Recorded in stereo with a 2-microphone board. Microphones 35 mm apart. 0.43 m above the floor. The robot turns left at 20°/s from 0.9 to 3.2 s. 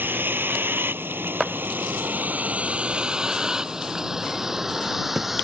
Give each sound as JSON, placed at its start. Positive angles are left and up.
{"t": 0.0, "sound": "a vehicle", "side_deg": -70}